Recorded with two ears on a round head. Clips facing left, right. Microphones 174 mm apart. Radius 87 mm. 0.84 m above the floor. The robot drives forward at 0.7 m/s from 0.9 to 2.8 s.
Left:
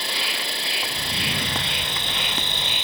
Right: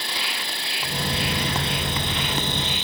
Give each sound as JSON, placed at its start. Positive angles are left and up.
{"t": 0.0, "sound": "an insect", "side_deg": 65}